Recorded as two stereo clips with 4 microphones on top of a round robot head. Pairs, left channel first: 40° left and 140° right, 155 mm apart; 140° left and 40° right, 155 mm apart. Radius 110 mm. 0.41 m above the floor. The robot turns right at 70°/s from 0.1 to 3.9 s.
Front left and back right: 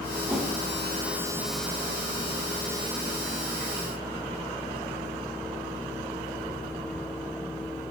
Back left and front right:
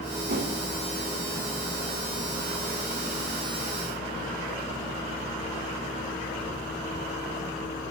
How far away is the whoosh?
About 3 m.